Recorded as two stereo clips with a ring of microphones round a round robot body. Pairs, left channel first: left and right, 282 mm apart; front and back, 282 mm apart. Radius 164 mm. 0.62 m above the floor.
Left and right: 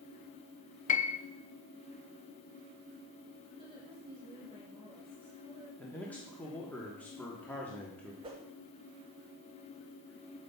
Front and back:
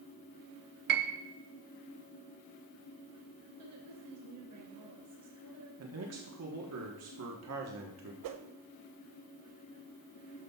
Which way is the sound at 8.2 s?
165° right.